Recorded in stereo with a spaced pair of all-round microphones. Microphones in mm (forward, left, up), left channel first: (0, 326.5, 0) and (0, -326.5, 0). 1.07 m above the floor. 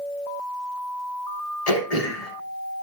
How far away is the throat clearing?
About 1.9 m.